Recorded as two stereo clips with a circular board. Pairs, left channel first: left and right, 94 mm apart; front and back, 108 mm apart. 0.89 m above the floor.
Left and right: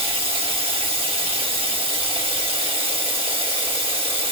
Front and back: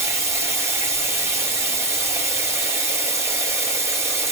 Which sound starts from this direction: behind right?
Running water, at 0.0 s.